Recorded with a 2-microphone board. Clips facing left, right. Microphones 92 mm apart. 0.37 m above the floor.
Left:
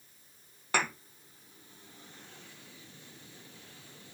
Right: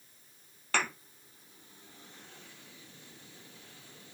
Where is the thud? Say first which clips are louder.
Left 1 dB; 15° left (ahead or behind), 4 m.